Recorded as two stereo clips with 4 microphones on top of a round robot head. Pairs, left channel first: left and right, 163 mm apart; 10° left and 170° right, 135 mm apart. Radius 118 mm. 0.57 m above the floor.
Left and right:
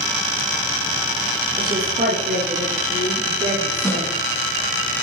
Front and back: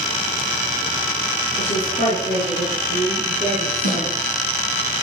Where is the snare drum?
15° left, 5 m.